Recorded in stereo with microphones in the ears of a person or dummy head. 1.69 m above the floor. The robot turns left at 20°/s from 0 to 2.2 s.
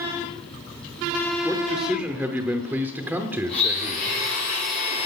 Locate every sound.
1.4 s a man speaking: 5° left (ahead or behind), 0.8 m; by 4.1 s 10° right (ahead or behind), 0.8 m
3.5 s a blender: 50° left (ahead or behind), 4.5 m